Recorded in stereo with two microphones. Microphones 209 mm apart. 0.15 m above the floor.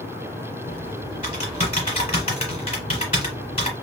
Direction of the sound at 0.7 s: 30° left (ahead or behind).